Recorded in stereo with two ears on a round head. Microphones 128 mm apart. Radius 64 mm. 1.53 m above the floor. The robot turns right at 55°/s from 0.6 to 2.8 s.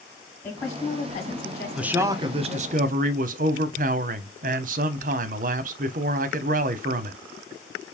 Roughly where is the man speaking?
Behind.